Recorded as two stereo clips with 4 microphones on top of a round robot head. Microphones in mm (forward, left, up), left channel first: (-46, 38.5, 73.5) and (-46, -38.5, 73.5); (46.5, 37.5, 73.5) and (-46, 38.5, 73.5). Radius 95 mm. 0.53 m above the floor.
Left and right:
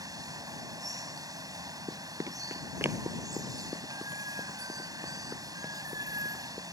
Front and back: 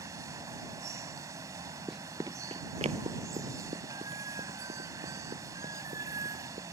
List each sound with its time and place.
0.0 s running water: 125° right
1.9 s running footsteps: 90° right; by 6.6 s 170° right